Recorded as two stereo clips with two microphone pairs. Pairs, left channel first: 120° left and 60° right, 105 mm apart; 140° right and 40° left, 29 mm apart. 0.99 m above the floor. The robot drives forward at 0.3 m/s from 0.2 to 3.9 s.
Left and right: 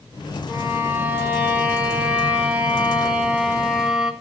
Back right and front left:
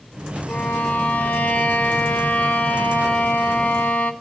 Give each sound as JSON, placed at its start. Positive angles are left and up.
{"t": 0.5, "sound": "a violin", "azimuth_deg": -130, "distance_m": 2.5}